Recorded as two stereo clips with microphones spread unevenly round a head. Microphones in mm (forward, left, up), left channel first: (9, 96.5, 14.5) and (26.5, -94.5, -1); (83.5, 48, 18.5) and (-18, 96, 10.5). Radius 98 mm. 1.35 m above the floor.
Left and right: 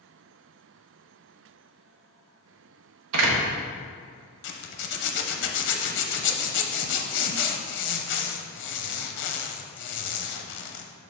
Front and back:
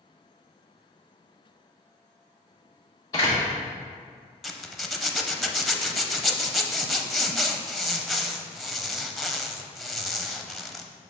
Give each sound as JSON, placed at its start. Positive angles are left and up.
{"t": 3.1, "sound": "a door slam", "azimuth_deg": -100, "distance_m": 1.1}
{"t": 4.4, "sound": "a zipper", "azimuth_deg": 65, "distance_m": 0.7}